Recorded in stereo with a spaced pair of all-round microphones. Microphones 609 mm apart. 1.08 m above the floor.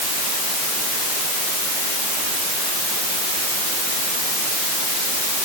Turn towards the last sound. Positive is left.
No sound to turn to.